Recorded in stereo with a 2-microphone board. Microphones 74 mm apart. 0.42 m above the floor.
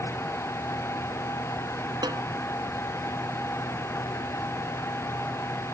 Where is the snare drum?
75° right (ahead or behind).